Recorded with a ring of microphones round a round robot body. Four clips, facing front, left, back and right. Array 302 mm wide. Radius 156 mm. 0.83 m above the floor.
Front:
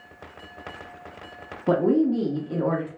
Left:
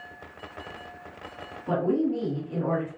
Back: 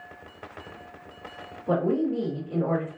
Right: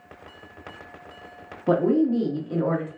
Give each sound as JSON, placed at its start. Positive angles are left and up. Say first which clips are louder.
{"t": 1.7, "sound": "a woman speaking", "louder": "right 5 dB, front 4 dB", "azimuth_deg": -40, "distance_m": 1.5}